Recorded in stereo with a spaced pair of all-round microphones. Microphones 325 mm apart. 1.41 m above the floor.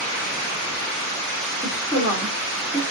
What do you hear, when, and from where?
1.6 s a woman speaking: 20° left (ahead or behind), 4 m